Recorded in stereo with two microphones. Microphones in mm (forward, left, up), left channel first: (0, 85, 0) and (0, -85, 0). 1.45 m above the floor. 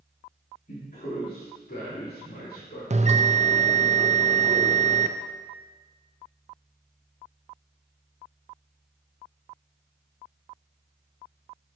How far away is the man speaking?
About 3 m.